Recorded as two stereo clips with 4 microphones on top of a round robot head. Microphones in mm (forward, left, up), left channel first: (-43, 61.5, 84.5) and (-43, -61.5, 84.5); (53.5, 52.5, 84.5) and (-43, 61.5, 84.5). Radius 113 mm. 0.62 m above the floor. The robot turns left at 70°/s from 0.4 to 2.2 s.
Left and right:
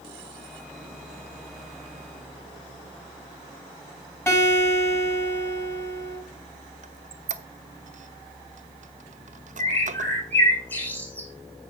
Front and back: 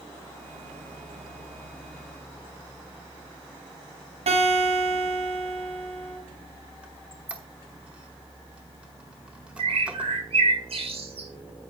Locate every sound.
4.3 s a guitar: 160° left, 6.5 m
6.8 s a squeak: 105° right, 0.8 m
9.6 s a bird: 165° left, 3 m